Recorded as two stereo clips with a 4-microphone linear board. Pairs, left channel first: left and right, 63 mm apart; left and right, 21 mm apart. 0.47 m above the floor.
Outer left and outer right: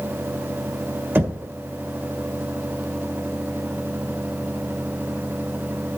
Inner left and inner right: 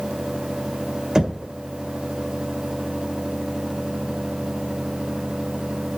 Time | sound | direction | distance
1.1 | knocking | 30° right (ahead or behind) | 1.6 m